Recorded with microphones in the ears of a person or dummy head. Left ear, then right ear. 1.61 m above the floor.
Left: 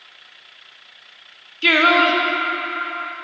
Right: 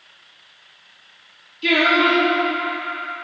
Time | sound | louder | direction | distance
1.6 | singing | left 2 dB | 55° left (ahead or behind) | 0.6 m